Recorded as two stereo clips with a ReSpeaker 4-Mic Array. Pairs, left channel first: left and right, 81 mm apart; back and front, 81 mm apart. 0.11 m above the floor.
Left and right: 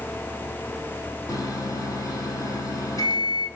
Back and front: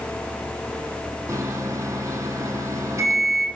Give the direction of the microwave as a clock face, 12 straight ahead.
10 o'clock.